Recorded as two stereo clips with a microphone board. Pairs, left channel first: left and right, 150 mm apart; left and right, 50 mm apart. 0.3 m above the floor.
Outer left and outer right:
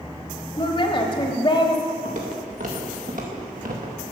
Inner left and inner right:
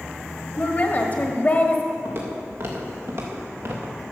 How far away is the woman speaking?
About 1.2 m.